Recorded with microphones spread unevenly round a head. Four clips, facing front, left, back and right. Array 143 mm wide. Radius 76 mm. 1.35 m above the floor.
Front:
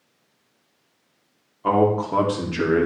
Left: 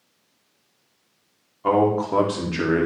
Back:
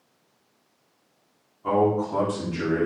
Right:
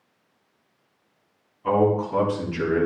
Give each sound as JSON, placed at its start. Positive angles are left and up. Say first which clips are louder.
{"t": 1.6, "sound": "a man speaking", "louder": "left 1 dB, front 3 dB", "azimuth_deg": 50, "distance_m": 4.0}